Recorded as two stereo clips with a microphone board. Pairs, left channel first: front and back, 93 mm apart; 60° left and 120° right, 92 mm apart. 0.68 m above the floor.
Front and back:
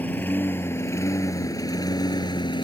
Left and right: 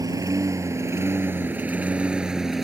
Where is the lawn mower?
70° right; by 2.6 s 35° right.